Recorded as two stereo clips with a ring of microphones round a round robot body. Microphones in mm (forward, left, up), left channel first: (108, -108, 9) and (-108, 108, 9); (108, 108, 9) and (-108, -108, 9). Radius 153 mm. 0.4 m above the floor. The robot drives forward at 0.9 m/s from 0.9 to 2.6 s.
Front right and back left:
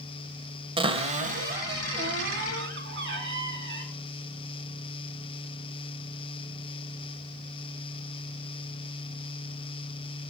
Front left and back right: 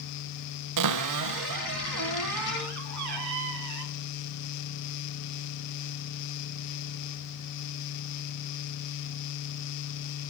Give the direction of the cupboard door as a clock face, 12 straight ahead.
5 o'clock.